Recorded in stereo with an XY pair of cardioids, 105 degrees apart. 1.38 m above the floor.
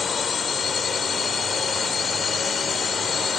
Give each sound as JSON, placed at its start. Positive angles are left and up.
{"t": 0.0, "sound": "a drone", "azimuth_deg": 45}